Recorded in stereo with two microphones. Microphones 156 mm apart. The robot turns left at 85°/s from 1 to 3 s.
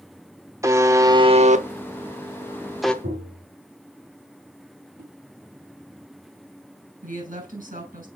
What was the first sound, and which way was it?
A buzzer, 20° right (ahead or behind).